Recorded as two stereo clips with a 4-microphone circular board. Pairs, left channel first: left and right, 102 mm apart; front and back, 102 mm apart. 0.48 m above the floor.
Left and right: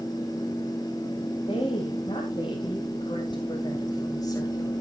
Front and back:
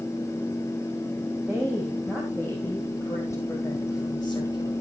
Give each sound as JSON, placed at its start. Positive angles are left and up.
{"t": 1.5, "sound": "a woman speaking", "azimuth_deg": 80, "distance_m": 3.0}